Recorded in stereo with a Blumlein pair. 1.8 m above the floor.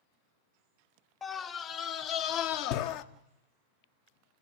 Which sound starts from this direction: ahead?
A scream, at 1.2 s.